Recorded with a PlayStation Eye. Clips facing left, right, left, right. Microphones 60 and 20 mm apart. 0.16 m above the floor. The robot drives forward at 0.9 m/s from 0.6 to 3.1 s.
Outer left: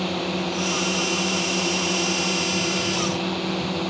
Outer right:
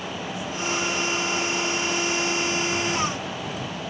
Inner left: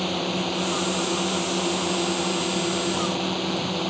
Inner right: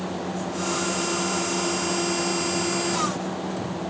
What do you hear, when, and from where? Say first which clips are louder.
0.0 s a drone: outer left 6 dB, inner left 4 dB; 65° left (ahead or behind)